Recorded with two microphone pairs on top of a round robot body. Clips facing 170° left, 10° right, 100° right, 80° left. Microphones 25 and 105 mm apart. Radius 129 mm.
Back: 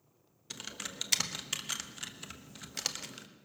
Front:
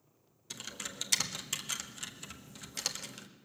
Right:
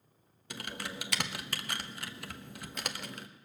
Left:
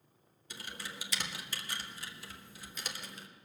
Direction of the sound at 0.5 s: 115° right.